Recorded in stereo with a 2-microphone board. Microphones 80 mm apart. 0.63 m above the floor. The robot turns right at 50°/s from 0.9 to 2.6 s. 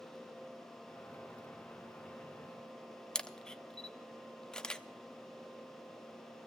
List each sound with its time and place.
3.1 s a camera shutter: 10° left (ahead or behind), 0.5 m